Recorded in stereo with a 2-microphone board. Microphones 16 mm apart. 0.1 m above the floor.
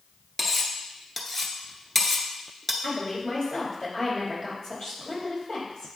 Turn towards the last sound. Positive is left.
turn(degrees=45)  # may be behind; listen again after turning